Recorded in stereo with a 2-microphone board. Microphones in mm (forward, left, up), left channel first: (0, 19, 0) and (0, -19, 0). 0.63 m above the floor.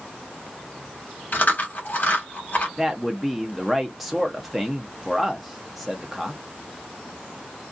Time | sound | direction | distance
1.3 | chewing | 55° left (ahead or behind) | 1.1 m
2.8 | a man speaking | 5° right (ahead or behind) | 0.5 m